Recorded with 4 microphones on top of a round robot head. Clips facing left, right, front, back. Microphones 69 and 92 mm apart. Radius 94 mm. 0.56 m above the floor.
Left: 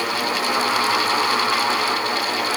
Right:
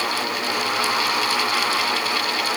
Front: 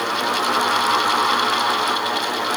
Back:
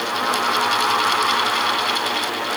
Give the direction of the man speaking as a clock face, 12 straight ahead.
I don't hear a man speaking.